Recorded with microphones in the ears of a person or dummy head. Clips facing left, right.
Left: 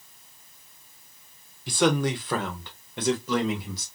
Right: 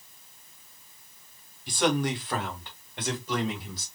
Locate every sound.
1.7 s a man speaking: 65° left (ahead or behind), 1.0 m; by 3.9 s 70° left (ahead or behind), 2.5 m